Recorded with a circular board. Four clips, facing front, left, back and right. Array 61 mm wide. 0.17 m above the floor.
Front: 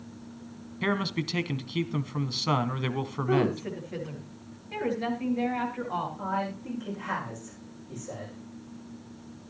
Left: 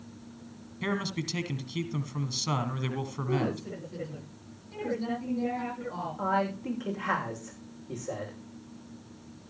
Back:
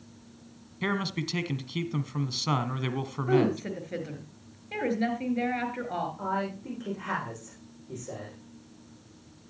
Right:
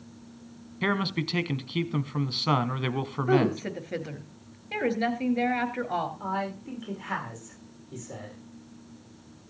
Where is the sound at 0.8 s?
80° right, 1.1 m.